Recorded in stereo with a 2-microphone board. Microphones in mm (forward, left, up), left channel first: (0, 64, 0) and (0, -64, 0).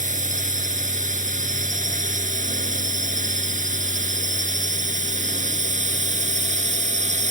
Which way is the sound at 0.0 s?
70° right (ahead or behind).